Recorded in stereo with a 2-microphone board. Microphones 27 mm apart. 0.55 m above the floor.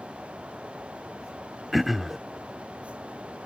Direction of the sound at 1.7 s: Centre (ahead or behind).